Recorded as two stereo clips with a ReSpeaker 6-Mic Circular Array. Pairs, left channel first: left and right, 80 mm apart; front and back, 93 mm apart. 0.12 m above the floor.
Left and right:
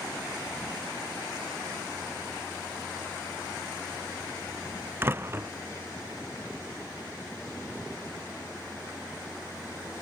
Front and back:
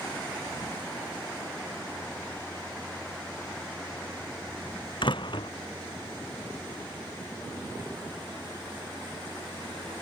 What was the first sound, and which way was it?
A door slam, 30° right.